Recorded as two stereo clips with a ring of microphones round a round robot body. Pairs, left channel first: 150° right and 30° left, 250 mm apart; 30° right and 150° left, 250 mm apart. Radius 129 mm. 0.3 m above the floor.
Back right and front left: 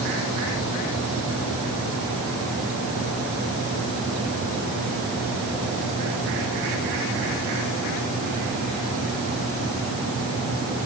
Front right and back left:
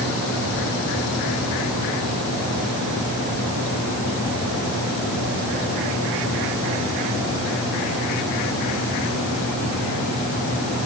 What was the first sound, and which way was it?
Only background noise.